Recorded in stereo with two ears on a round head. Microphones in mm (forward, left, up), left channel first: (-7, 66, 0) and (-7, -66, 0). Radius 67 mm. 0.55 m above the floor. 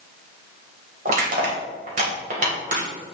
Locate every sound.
1.1 s crushing: 55° right (ahead or behind), 2.5 m